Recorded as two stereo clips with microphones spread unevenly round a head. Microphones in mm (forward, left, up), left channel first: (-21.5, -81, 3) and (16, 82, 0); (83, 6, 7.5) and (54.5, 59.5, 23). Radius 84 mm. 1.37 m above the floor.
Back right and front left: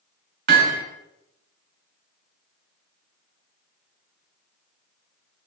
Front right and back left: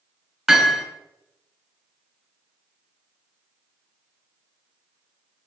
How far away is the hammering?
About 4 m.